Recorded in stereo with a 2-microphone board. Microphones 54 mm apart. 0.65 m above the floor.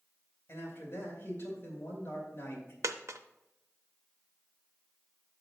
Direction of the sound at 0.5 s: 50° left (ahead or behind).